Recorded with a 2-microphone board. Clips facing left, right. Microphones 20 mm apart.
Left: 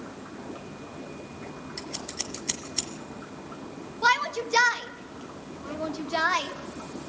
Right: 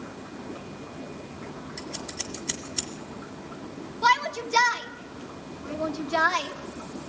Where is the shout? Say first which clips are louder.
Right 1 dB; 10° left (ahead or behind), 1.4 m.